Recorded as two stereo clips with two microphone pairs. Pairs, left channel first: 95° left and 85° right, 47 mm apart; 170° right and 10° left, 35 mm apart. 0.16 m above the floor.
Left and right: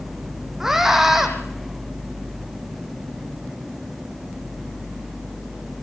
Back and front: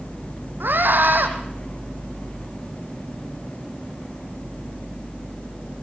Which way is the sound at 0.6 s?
5° right.